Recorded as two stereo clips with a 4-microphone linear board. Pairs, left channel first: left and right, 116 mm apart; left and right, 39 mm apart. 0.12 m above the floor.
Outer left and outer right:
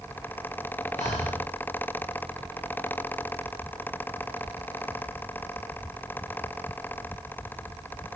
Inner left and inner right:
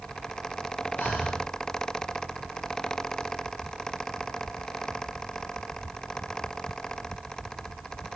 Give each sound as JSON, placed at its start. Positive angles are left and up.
{"t": 1.0, "sound": "breathing", "side_deg": 75, "distance_m": 4.0}